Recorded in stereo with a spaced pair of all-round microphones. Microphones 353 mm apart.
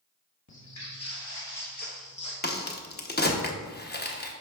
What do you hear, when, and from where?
0.5 s footsteps: 50° left (ahead or behind), 1.8 m; by 2.3 s 15° left (ahead or behind), 1.7 m
2.4 s a crack: 30° left (ahead or behind), 0.7 m